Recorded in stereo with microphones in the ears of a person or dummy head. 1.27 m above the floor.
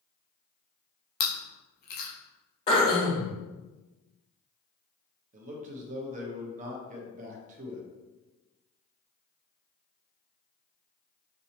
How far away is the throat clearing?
About 1.1 m.